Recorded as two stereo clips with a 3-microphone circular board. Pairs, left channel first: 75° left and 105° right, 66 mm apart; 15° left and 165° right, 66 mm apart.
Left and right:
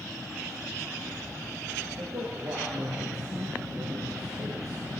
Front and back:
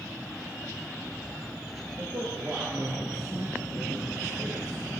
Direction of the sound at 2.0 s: 135° right.